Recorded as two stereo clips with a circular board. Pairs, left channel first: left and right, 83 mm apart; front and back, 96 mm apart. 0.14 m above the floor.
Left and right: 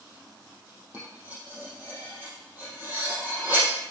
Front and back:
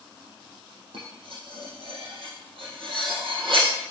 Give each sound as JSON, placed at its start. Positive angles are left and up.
{"t": 0.9, "sound": "cutlery clinking", "azimuth_deg": -155, "distance_m": 4.0}